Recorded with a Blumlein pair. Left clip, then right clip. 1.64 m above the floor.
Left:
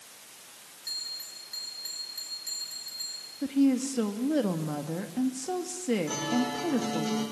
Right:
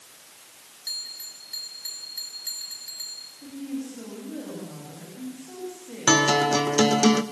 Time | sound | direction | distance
0.9 | a bell | 15° right | 5 m
3.4 | a woman speaking | 35° left | 2.5 m
6.1 | a guitar | 40° right | 1.7 m